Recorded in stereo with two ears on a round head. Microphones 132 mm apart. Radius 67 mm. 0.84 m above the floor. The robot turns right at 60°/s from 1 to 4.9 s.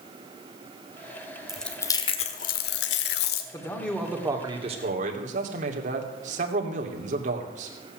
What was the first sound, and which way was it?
Chewing, 5° right.